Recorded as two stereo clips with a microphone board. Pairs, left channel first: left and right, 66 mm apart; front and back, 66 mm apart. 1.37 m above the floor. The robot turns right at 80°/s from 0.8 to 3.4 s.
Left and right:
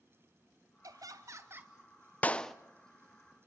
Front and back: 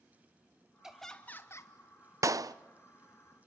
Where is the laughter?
100° right, 1.3 m; by 1.7 s 25° right, 1.3 m.